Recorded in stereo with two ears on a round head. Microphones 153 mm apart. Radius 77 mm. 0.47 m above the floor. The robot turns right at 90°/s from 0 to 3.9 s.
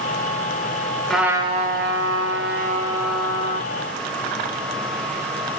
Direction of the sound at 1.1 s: 175° left.